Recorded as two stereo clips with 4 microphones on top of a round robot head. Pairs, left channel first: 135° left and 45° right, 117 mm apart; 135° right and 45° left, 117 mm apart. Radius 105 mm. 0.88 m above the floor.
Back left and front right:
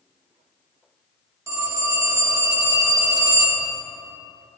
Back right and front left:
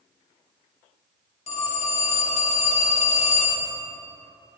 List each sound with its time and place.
1.5 s a phone ringing: 110° right, 1.4 m